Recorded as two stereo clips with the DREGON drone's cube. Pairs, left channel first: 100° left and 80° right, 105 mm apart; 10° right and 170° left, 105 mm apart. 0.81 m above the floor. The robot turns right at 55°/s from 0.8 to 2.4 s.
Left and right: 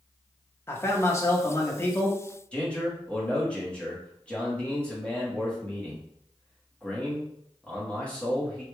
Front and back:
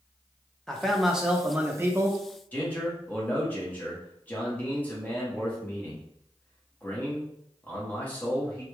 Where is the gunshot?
No gunshot in this recording.